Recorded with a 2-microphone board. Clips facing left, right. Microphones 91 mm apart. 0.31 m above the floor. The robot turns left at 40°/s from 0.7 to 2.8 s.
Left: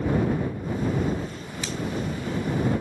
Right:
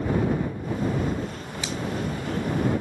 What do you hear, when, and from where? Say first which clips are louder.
1.6 s a finger snap: right 1 dB; 15° right (ahead or behind); by 1.8 s 10° right (ahead or behind)